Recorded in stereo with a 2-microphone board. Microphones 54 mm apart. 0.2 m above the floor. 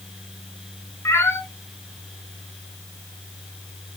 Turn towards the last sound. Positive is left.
turn(degrees=60)  # may be behind; listen again after turning